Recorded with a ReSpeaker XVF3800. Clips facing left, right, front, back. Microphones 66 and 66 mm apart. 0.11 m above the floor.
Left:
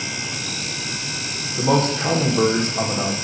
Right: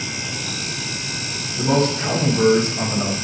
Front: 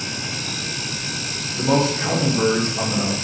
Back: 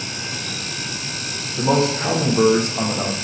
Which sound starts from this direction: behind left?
A man speaking, at 1.6 s.